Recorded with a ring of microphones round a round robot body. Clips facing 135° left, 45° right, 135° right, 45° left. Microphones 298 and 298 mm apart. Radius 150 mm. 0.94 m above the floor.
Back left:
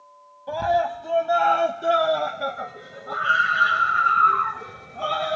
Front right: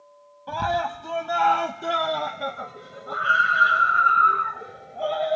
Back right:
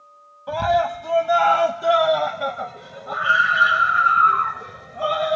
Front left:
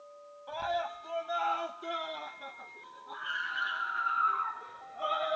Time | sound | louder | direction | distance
0.5 | a scream | back left 4 dB, back right 15 dB | 115° right | ?